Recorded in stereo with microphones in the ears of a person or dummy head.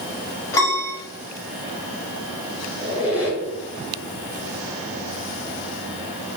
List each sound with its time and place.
0.5 s a piano: 20° left (ahead or behind), 1.5 m
2.8 s a squeak: 25° left (ahead or behind), 1.1 m